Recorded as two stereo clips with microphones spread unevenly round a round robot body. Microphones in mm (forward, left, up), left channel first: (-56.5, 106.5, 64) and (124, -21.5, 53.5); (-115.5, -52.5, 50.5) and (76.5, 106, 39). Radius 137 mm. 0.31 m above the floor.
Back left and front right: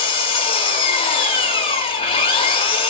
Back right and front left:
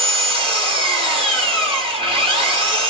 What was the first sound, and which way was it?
An engine running, 90° left.